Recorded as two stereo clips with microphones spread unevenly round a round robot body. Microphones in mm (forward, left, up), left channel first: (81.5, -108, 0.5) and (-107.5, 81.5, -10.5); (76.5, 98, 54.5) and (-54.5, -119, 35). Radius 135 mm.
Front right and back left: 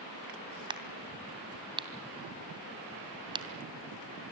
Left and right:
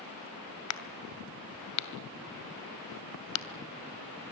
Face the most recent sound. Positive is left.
turn(degrees=60)